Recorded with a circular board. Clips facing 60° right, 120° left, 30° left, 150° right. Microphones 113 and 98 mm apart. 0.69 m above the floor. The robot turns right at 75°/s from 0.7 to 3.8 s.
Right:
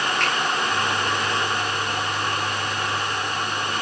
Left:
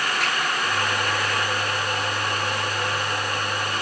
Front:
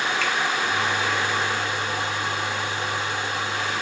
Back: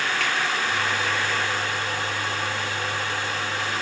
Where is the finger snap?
160° right, 6 m.